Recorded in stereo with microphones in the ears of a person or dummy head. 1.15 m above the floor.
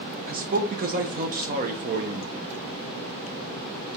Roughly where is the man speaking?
Right.